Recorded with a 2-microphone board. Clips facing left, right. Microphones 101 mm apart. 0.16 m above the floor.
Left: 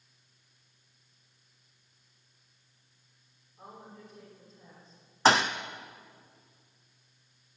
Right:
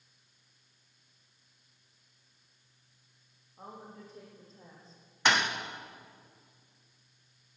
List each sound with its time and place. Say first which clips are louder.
3.6 s a woman speaking: right 1 dB; 30° right (ahead or behind), 6.5 m; by 5.0 s 35° right (ahead or behind), 5.5 m
5.2 s a thud: left 5 dB; 30° left (ahead or behind), 1.0 m